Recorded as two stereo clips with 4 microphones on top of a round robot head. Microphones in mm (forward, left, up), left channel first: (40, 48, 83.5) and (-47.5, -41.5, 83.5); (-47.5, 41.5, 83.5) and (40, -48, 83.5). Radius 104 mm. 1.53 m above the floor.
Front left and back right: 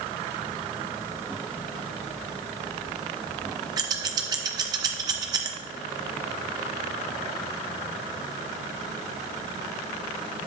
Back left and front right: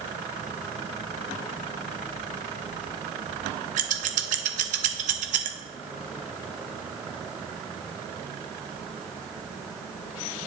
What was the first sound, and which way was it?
Scissors, 75° right.